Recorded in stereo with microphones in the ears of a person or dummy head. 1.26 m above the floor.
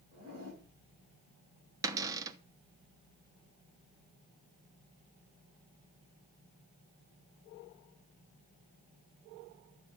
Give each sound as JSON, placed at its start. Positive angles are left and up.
{"t": 0.1, "sound": "a zipper", "side_deg": -50, "distance_m": 8.0}
{"t": 1.8, "sound": "a cupboard door", "side_deg": -15, "distance_m": 1.0}